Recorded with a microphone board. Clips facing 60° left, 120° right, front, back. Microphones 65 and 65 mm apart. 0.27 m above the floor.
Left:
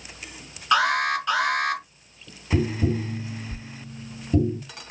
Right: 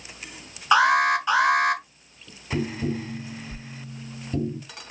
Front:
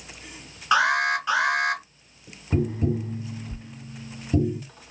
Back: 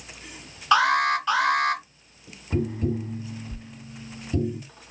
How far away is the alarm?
About 2.5 m.